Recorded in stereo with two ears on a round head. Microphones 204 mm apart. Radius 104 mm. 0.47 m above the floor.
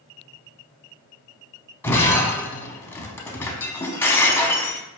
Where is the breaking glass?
10° left (ahead or behind), 0.6 m.